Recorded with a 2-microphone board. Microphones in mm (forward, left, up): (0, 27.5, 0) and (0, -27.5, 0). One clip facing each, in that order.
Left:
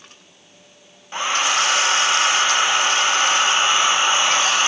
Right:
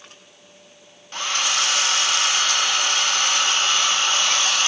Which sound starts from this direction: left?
A hair dryer, at 1.1 s.